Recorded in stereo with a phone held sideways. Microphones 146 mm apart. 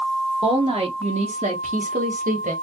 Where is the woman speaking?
45° right (ahead or behind), 1.8 m; by 2.5 s 80° right, 1.6 m.